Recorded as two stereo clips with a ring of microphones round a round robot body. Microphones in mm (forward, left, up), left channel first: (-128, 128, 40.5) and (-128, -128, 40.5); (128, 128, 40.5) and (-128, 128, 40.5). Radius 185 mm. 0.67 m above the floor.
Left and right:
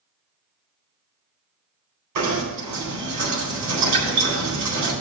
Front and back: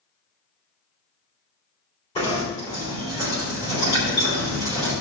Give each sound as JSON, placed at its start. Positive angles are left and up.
{"t": 2.1, "sound": "knocking", "azimuth_deg": -75, "distance_m": 4.0}